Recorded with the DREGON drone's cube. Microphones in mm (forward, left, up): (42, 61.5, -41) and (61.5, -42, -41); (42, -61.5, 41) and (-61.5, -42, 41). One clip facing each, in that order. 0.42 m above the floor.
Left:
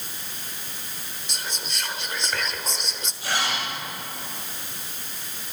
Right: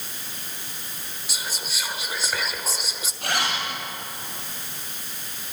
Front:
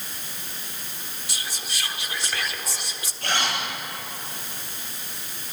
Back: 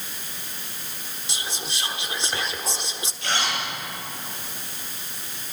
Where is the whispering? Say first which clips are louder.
Even, back 3 dB; 155° right, 1.2 m.